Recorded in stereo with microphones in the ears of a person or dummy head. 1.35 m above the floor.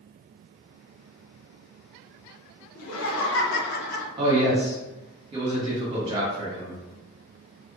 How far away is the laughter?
About 1.2 m.